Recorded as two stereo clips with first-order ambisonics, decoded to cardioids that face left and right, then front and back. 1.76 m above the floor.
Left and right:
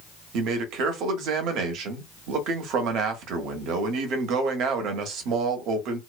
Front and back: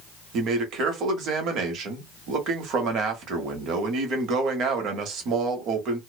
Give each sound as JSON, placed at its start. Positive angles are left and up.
{"t": 0.3, "sound": "a man speaking", "azimuth_deg": -130, "distance_m": 0.9}